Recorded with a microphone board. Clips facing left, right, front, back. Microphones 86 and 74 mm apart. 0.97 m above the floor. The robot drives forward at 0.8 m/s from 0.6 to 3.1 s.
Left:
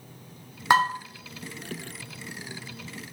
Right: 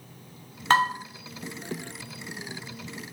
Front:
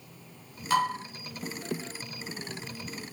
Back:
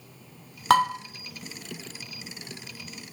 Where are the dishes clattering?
170° left, 1.6 m.